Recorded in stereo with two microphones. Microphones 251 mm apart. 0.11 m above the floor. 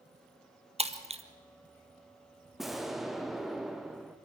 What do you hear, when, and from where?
0.8 s breaking glass: 25° right (ahead or behind), 1.2 m
2.6 s an explosion: centre (ahead or behind), 1.1 m